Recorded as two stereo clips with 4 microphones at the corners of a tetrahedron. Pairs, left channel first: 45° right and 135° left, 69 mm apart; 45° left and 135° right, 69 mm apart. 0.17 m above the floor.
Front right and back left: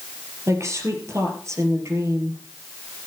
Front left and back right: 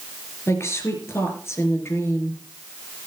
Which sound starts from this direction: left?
A woman speaking, at 0.5 s.